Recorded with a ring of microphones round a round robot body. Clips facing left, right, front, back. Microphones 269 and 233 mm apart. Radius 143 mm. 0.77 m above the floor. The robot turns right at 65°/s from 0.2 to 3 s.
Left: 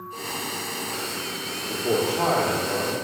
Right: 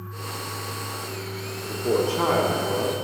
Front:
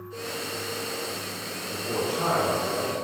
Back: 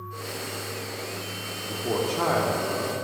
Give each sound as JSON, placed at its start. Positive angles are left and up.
{"t": 1.7, "sound": "a man speaking", "azimuth_deg": 170, "distance_m": 1.9}